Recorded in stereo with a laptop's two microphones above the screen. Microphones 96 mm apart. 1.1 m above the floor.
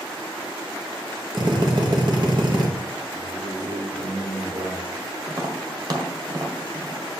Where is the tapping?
45° right (ahead or behind), 1.6 m.